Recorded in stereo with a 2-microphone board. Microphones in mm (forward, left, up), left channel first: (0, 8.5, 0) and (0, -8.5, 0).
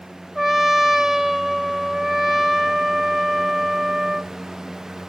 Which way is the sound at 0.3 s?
10° right (ahead or behind).